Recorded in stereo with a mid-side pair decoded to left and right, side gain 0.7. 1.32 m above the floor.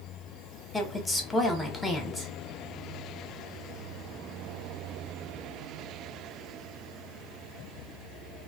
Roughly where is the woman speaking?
Ahead.